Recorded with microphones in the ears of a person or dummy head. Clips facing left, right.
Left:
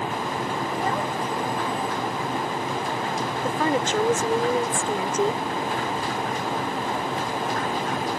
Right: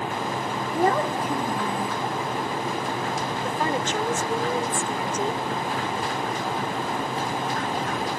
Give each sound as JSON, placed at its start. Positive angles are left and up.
{"t": 0.7, "sound": "a child speaking", "side_deg": -55}
{"t": 3.4, "sound": "a woman speaking", "side_deg": 70}